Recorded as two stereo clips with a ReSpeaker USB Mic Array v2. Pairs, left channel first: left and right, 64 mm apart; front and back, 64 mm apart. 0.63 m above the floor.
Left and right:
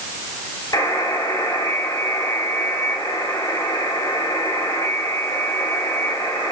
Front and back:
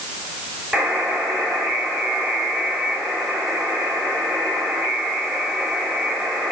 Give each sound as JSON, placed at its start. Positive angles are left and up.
{"t": 0.7, "sound": "a buzzer", "azimuth_deg": 100, "distance_m": 5.0}